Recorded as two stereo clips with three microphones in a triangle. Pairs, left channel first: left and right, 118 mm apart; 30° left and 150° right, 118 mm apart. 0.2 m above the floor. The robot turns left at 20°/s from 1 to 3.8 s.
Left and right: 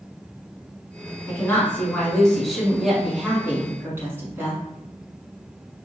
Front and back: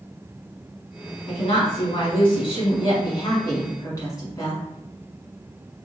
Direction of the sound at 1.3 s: 25° left.